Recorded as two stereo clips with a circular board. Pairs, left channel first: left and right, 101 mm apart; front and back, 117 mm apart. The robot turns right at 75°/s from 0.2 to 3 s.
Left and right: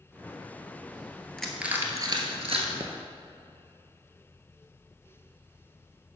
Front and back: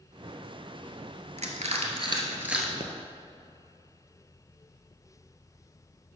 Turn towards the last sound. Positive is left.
turn(degrees=-120)